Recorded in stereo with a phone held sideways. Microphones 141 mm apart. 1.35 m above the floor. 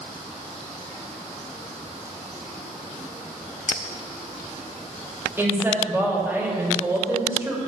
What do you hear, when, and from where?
3.7 s a clink: 55° left (ahead or behind), 1.5 m
5.4 s a woman speaking: 15° right (ahead or behind), 2.5 m